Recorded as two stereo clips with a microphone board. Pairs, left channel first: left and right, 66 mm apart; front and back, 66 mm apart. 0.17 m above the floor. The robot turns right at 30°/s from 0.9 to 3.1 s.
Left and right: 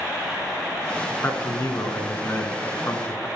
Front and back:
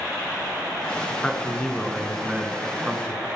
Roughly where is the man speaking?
Ahead left.